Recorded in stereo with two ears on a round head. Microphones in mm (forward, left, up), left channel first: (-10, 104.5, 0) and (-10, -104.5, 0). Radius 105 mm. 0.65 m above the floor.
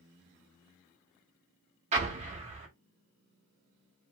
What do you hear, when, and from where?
1.9 s an explosion: 30° right (ahead or behind), 1.0 m